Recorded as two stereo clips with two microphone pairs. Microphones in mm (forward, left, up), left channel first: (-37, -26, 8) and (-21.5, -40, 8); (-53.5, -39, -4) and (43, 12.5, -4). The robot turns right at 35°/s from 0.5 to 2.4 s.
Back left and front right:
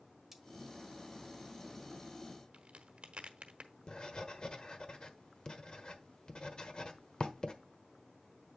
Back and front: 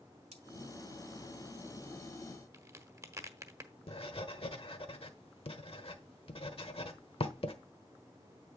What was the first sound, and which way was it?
Cutlery clinking, 35° left.